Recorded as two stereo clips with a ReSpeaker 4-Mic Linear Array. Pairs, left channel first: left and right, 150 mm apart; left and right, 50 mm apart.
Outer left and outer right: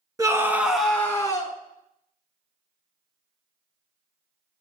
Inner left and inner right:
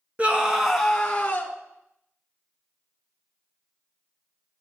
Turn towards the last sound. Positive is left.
turn(degrees=30)  # may be behind; listen again after turning